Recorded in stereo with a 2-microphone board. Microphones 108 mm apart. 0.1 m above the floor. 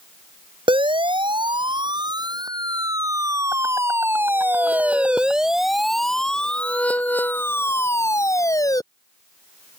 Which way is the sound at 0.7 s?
50° right (ahead or behind).